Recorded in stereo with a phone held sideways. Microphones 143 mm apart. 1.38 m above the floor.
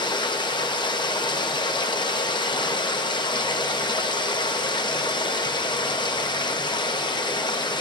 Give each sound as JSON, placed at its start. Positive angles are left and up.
{"t": 0.0, "sound": "running water", "side_deg": 30, "distance_m": 0.8}